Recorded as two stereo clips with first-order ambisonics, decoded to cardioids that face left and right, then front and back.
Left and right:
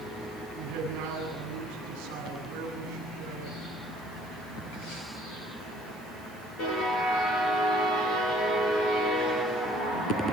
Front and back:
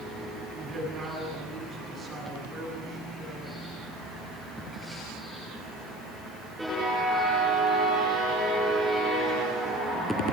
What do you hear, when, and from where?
0.6 s a man speaking: 105° right, 8.5 m